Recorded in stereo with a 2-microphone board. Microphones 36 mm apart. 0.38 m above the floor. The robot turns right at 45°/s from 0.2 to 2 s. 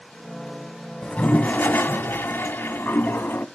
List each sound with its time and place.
1.0 s a toilet flushing: 30° left, 0.7 m; by 3.5 s 75° left, 0.7 m